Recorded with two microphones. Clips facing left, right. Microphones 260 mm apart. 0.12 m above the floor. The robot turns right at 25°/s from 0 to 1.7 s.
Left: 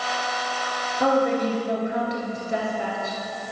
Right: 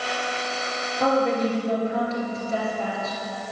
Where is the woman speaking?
5° left (ahead or behind), 2.5 m; by 3.2 s 20° left (ahead or behind), 2.5 m.